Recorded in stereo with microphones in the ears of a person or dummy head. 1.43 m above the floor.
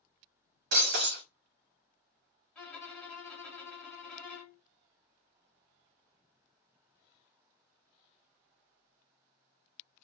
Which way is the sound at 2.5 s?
5° left (ahead or behind).